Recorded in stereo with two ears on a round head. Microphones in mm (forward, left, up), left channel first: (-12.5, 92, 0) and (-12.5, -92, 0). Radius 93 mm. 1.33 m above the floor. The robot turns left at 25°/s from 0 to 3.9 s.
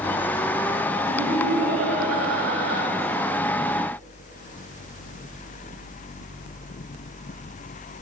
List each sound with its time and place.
1.1 s laughter: 40° right, 5.5 m; by 2.8 s 85° right, 5.5 m